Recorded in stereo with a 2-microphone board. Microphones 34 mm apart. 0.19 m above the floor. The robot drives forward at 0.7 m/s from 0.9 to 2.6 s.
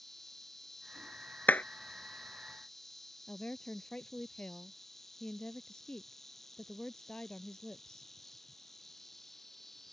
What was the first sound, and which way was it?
An insect, 15° left (ahead or behind).